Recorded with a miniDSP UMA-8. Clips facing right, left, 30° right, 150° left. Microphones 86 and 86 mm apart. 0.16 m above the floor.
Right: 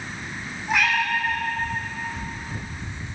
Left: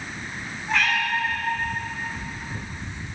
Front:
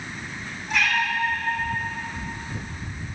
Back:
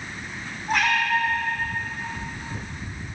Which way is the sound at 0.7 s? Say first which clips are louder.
Right 1 dB, back 2 dB; 170° right.